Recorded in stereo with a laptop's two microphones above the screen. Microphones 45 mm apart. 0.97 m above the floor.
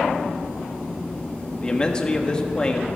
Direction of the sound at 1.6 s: 20° left (ahead or behind).